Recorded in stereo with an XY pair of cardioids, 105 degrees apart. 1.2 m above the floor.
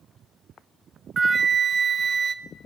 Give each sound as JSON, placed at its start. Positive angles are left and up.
{"t": 1.2, "sound": "a flute", "azimuth_deg": -30, "distance_m": 0.8}